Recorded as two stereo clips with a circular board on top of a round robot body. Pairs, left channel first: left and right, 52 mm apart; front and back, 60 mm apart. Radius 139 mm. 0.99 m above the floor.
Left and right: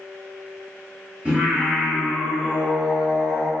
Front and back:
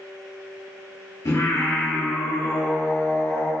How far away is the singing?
About 2 m.